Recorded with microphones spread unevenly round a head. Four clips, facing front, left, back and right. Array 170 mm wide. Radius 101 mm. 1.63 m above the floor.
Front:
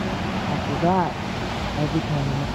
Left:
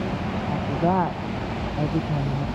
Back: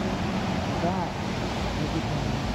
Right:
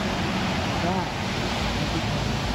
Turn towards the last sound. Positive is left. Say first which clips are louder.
# left 3 dB, front 9 dB
turn(degrees=15)